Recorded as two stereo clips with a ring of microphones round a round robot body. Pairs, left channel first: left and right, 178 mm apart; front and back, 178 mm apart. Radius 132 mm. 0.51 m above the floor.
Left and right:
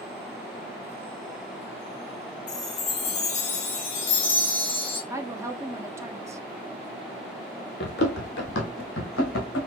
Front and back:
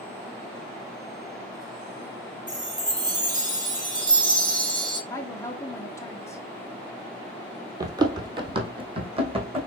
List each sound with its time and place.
2.5 s a chime: 115° left, 1.5 m
5.1 s a woman speaking: 45° right, 0.7 m
7.8 s running footsteps: 110° left, 0.8 m; by 9.7 s 125° left, 1.7 m